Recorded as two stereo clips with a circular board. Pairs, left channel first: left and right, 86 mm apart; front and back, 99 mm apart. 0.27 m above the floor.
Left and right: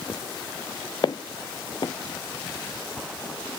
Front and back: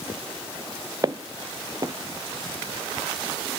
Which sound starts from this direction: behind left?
Footsteps, at 1.0 s.